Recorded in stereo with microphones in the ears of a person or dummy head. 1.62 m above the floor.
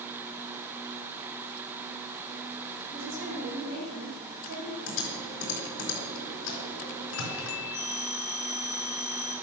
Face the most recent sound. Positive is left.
turn(degrees=-10)  # may be behind; listen again after turning